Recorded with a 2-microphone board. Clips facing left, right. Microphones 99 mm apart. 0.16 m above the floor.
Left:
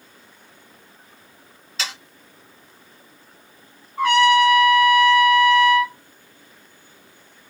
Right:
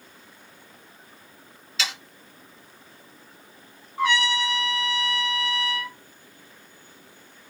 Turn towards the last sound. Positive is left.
turn(degrees=60)  # may be behind; listen again after turning